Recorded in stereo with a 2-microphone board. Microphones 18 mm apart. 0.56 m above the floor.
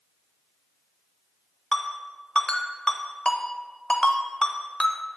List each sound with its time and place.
1.7 s a ringtone: 65° left (ahead or behind), 0.8 m